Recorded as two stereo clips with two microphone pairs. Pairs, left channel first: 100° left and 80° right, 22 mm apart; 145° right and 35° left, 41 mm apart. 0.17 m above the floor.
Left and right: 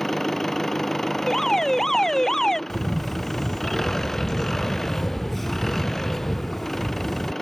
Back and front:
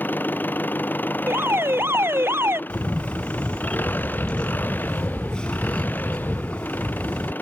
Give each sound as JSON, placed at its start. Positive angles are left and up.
{"t": 0.0, "sound": "an engine running", "azimuth_deg": 170}
{"t": 1.3, "sound": "an alarm", "azimuth_deg": 30}
{"t": 2.7, "sound": "a camera shutter", "azimuth_deg": 165}